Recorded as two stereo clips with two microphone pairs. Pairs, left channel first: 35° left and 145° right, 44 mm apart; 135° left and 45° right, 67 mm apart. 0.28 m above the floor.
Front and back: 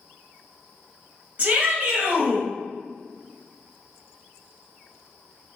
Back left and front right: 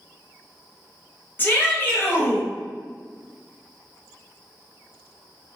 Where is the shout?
175° left, 1.4 m.